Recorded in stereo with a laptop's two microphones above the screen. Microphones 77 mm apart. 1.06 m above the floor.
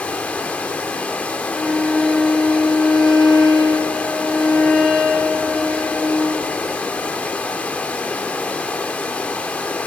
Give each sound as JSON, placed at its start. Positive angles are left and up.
{"t": 0.0, "sound": "running water", "side_deg": 20, "distance_m": 2.0}
{"t": 1.5, "sound": "a violin", "side_deg": 0, "distance_m": 7.0}